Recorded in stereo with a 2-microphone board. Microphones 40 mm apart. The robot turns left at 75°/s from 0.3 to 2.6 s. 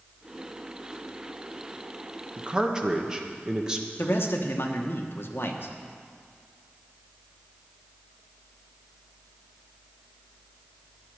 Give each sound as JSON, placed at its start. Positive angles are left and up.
{"t": 2.4, "sound": "a man speaking", "side_deg": -35, "distance_m": 1.1}
{"t": 4.0, "sound": "a man speaking", "side_deg": 70, "distance_m": 1.3}